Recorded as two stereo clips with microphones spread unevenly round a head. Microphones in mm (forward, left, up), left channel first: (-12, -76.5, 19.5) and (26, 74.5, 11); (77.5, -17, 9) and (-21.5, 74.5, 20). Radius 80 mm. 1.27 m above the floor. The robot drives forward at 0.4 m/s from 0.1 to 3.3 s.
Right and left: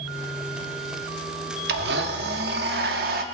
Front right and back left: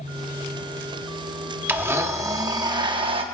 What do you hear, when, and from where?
1.7 s a blender: 65° left, 1.2 m; by 3.2 s 105° left, 1.1 m